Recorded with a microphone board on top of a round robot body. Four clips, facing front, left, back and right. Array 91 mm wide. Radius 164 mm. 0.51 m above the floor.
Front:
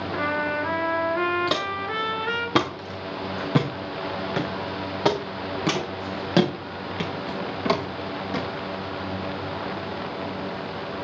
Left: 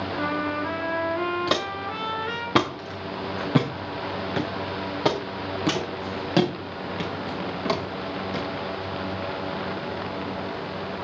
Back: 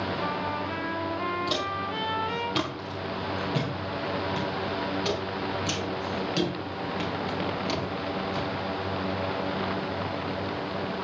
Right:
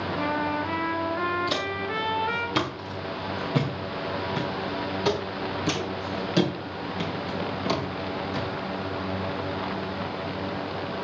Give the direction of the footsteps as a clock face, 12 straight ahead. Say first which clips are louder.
Left 2 dB, front 3 dB; 10 o'clock.